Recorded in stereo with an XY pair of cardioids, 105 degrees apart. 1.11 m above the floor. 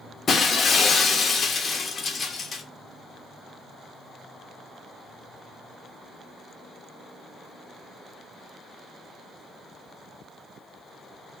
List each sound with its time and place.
0.3 s breaking glass: 40° left, 0.8 m